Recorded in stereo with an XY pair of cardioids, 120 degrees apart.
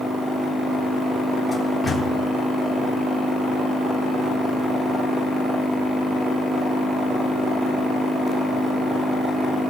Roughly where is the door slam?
Ahead.